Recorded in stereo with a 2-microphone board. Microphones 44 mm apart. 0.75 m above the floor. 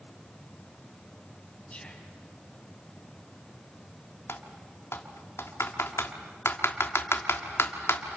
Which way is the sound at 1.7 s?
20° left (ahead or behind).